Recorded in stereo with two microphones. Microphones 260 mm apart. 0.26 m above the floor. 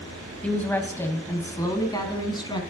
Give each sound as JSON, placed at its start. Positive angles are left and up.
{"t": 0.4, "sound": "a woman speaking", "side_deg": 5, "distance_m": 1.3}